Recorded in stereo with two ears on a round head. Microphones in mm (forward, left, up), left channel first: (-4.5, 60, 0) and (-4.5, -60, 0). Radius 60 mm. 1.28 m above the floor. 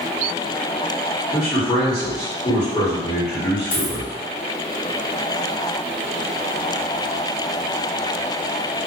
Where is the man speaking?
30° left (ahead or behind), 1.8 m.